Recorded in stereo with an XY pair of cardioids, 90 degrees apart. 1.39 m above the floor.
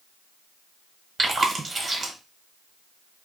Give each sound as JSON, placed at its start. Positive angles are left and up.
{"t": 1.2, "sound": "chewing", "azimuth_deg": -45, "distance_m": 1.0}